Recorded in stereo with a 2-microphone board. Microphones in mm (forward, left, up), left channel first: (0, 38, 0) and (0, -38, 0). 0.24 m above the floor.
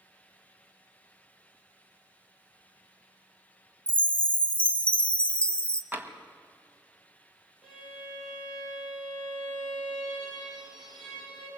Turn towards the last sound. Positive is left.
turn(degrees=-5)  # may be behind; listen again after turning